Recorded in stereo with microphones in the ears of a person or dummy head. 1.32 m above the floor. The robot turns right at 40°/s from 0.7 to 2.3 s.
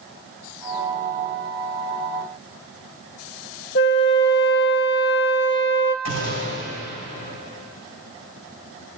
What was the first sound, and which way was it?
A flute, 55° left (ahead or behind).